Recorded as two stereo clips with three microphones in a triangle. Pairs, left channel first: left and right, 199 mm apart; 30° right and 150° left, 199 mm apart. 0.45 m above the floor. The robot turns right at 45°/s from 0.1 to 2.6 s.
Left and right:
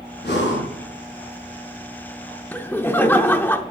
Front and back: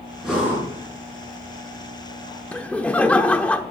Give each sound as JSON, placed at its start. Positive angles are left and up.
{"t": 0.2, "sound": "breathing", "azimuth_deg": 60, "distance_m": 5.0}
{"t": 2.5, "sound": "laughter", "azimuth_deg": 30, "distance_m": 0.7}